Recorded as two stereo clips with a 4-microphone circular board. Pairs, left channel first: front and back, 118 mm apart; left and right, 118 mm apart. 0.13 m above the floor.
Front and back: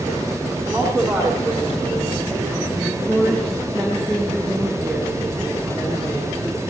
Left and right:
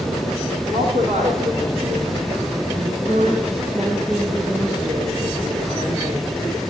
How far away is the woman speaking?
About 10 m.